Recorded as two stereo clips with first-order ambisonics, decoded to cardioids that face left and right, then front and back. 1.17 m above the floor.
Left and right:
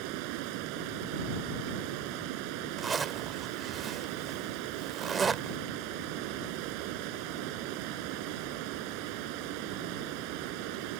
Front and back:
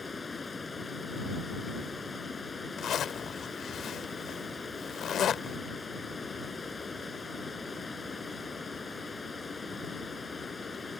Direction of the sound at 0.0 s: 75° right.